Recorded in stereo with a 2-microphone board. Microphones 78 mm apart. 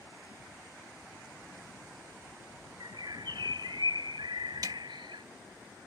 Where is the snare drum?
50° right (ahead or behind).